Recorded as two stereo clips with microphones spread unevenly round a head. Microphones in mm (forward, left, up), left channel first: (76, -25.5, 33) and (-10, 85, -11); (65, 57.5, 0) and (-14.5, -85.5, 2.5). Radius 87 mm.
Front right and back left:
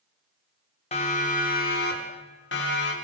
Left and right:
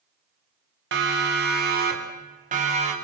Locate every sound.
0.9 s a siren: 110° right, 4 m; by 2.9 s 70° right, 5 m